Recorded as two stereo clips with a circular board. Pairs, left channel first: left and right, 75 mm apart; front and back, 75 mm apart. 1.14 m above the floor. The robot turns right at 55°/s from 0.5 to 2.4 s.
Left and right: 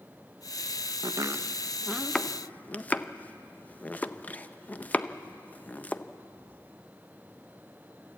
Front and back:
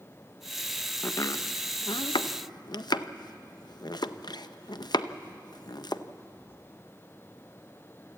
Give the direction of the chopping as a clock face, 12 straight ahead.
2 o'clock.